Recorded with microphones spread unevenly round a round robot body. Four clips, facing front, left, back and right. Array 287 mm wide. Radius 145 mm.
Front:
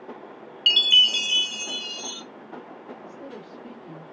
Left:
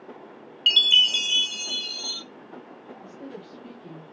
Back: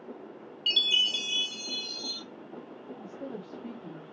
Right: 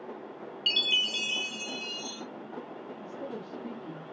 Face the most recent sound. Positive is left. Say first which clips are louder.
# right 1 dB, even
turn(degrees=-170)